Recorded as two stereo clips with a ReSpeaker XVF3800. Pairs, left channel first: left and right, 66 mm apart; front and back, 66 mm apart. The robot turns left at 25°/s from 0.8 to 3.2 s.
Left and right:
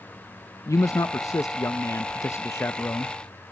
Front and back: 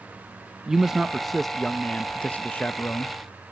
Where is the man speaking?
105° left, 0.5 m; by 3.1 s 45° left, 0.5 m.